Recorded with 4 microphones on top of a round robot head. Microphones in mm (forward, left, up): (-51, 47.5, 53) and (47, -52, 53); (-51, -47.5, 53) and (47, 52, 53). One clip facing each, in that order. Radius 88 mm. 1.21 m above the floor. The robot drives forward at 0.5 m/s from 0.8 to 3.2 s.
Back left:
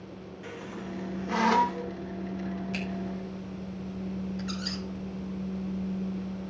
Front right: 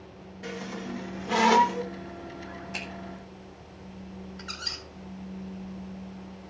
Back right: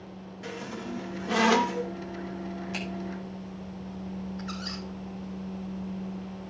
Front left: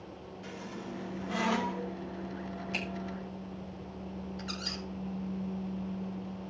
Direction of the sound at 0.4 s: 100° right.